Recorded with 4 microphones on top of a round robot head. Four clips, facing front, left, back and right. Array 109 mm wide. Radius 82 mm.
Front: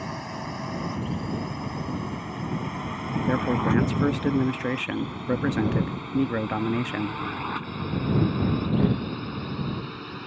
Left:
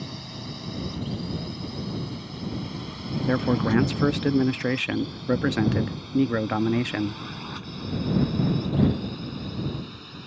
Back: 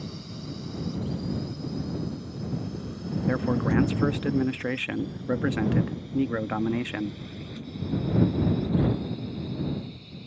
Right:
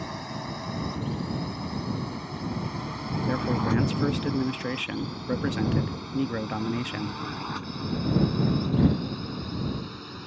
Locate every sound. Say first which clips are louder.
0.0 s a drone: right 3 dB, front 6 dB; 35° right; by 10.3 s 15° right
3.3 s a man speaking: left 4 dB, front 2 dB; 85° left